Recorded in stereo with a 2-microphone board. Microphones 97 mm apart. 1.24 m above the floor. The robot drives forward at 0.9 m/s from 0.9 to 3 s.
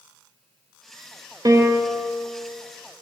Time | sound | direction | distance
1.4 | a piano | 40° right (ahead or behind) | 0.9 m